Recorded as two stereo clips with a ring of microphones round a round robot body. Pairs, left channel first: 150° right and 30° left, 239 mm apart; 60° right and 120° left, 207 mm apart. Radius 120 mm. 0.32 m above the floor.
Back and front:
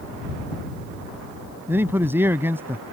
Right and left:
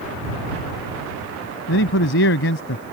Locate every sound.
1.7 s a man speaking: 50° right